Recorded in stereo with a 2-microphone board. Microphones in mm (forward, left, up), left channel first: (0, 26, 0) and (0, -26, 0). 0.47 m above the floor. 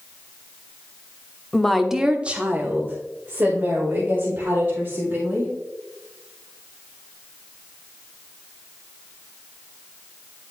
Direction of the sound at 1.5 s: 5° left (ahead or behind).